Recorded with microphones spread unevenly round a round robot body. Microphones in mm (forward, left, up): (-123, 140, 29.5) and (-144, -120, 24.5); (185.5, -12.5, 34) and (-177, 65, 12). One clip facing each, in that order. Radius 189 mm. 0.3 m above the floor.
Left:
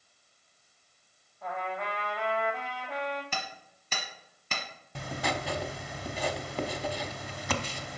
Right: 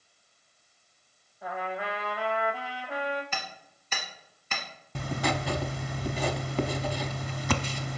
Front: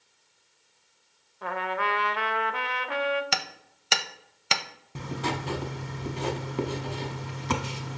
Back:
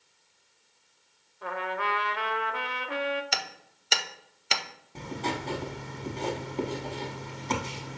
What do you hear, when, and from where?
1.4 s a trumpet: 15° right, 0.6 m
3.3 s hammering: 25° left, 0.6 m
5.0 s writing: 85° right, 0.5 m